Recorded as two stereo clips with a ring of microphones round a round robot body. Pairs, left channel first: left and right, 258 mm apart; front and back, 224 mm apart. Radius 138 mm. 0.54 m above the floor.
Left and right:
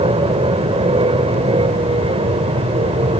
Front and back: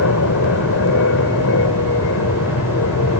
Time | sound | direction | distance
0.0 | an aircraft | 20° right | ?